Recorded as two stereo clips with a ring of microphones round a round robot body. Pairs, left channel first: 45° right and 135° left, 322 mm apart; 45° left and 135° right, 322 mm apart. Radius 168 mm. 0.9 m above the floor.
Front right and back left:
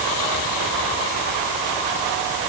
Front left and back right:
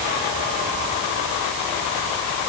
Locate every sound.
Only background noise.